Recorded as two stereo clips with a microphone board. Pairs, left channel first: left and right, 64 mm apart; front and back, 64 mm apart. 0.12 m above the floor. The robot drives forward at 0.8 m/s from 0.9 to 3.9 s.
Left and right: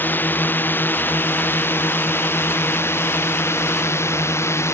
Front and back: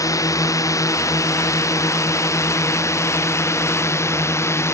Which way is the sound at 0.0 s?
30° left.